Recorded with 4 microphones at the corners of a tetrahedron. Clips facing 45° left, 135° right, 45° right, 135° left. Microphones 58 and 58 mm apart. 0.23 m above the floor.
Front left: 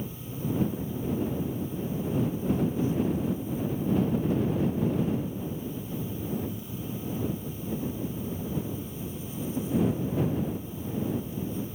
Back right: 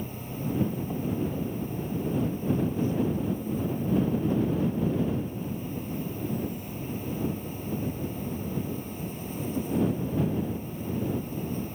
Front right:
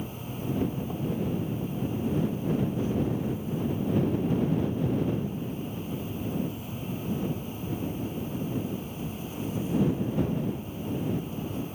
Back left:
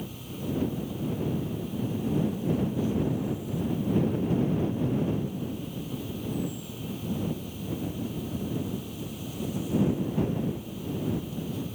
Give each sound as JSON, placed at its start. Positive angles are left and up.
{"t": 0.0, "sound": "an insect", "azimuth_deg": -105}